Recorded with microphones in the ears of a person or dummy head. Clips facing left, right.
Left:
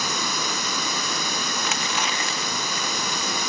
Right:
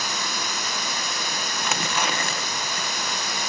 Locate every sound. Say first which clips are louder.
0.0 s running water: left 3 dB; 75° left (ahead or behind), 6 m
1.6 s tearing paper: right 5 dB; 45° right (ahead or behind), 1.1 m